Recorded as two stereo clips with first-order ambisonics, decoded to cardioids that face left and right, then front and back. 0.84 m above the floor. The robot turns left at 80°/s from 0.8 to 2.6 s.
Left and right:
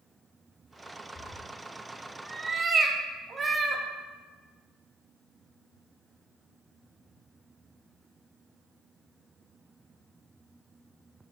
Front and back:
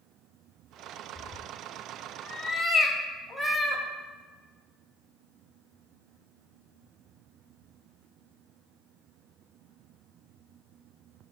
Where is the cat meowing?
50° left, 0.6 m; by 3.8 s 65° right, 0.6 m.